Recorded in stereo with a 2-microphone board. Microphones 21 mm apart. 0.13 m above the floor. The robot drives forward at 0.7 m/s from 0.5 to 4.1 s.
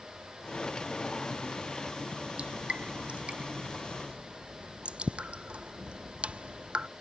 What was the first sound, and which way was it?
Dripping, 75° right (ahead or behind).